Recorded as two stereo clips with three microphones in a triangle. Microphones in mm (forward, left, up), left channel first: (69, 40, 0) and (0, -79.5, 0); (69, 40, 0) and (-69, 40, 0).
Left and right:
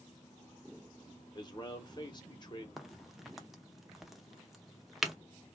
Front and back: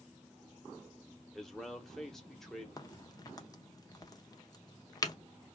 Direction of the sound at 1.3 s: 85° left.